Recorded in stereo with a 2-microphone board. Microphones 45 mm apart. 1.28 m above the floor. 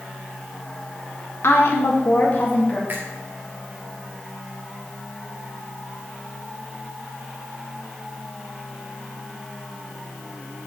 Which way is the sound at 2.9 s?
45° right (ahead or behind).